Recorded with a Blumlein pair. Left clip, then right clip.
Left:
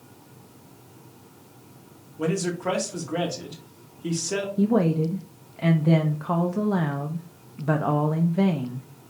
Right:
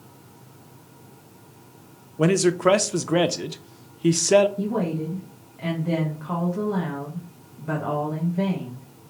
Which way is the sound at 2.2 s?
65° right.